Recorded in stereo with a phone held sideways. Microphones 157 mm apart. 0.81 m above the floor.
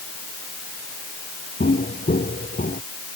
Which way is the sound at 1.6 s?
70° left (ahead or behind).